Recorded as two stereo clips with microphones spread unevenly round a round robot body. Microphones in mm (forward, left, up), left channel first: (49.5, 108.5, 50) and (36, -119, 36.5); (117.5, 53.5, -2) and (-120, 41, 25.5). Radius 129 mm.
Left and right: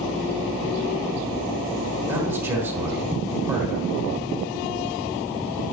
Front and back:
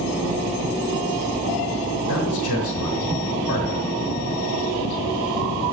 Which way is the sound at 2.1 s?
15° right.